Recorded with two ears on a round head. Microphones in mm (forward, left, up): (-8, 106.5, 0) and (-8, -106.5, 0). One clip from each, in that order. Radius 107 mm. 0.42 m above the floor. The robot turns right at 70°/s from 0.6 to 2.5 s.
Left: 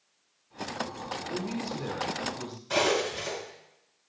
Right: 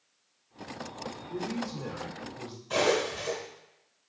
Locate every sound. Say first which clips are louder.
1.3 s a man speaking: left 1 dB; 25° left (ahead or behind), 0.8 m; by 2.6 s centre (ahead or behind), 0.8 m
2.7 s cutlery clinking: even; 25° left (ahead or behind), 2.5 m